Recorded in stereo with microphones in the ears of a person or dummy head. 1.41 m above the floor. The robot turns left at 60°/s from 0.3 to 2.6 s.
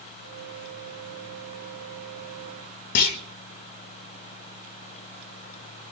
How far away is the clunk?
About 1.3 m.